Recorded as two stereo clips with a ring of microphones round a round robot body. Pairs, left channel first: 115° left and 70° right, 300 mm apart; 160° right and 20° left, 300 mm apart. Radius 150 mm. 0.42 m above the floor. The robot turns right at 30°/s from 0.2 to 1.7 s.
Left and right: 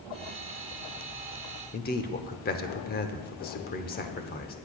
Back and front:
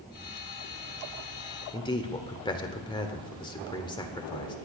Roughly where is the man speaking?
Behind left.